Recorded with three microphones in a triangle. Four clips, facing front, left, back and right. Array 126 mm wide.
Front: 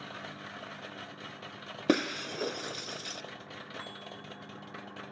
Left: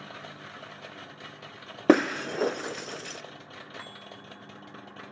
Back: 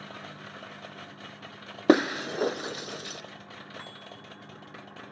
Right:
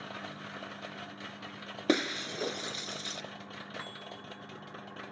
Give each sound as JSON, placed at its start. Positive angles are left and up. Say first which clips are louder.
{"t": 1.9, "sound": "breaking glass", "louder": "left 9 dB, back 7 dB", "azimuth_deg": 135, "distance_m": 0.5}